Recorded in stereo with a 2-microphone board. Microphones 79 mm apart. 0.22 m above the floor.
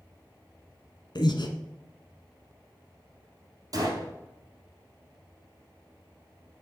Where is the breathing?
65° left (ahead or behind), 1.1 m.